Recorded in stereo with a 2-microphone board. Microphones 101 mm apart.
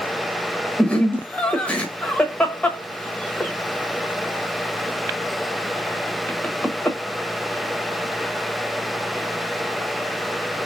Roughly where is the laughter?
Centre.